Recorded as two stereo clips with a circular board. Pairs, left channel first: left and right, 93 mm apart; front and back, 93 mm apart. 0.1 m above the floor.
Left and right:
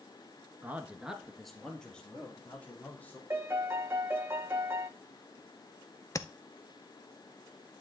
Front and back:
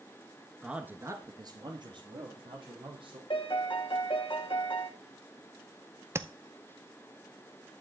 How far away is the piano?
About 1.2 m.